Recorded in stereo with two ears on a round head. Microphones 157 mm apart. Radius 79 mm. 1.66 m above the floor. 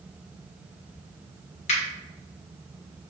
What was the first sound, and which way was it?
A finger snap, 40° left (ahead or behind).